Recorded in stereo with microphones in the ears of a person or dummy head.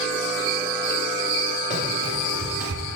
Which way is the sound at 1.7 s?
30° right (ahead or behind).